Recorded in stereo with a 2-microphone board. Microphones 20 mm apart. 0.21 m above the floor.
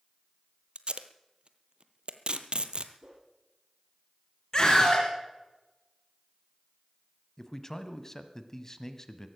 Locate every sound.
0.8 s tape being pulled: 50° right (ahead or behind), 0.8 m
3.0 s a whoosh: 40° right (ahead or behind), 5 m
4.5 s a scream: 25° left (ahead or behind), 2.5 m
7.4 s a man speaking: 20° left (ahead or behind), 1.0 m